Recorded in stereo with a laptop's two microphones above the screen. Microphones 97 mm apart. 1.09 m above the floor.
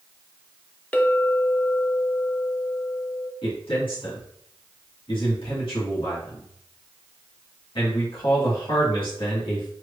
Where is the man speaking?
65° left (ahead or behind), 2 m.